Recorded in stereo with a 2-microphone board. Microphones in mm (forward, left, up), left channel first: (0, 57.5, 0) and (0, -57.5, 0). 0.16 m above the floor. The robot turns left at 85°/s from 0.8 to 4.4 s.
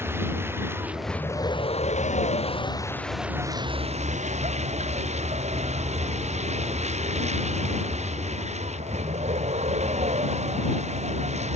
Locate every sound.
0.0 s a vehicle: 160° right; by 11.6 s 105° right